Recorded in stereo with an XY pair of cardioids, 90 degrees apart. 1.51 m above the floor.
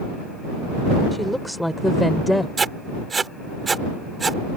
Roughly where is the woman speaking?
Ahead.